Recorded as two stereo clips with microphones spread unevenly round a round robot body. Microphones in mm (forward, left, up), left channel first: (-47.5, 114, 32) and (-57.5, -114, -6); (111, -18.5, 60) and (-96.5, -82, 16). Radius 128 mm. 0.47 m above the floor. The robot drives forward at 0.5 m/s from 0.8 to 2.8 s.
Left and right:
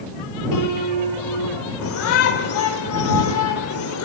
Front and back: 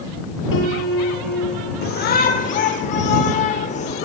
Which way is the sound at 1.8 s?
65° left.